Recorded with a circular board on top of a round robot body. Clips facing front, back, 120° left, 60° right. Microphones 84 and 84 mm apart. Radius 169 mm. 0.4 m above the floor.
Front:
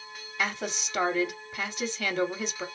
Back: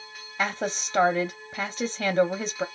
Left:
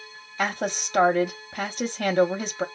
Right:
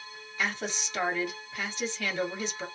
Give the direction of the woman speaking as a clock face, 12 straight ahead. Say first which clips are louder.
Back 4 dB, left 6 dB; 7 o'clock.